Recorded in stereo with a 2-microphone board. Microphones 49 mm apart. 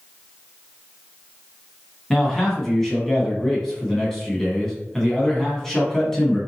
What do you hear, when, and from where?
2.1 s a man speaking: 10° left (ahead or behind), 1.2 m